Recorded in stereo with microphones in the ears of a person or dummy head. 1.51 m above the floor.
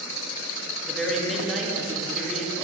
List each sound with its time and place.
0.9 s a man speaking: centre (ahead or behind), 1.1 m